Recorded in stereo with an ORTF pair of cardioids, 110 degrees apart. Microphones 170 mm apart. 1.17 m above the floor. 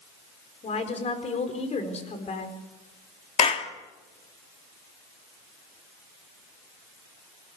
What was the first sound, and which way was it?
A woman speaking, 40° left.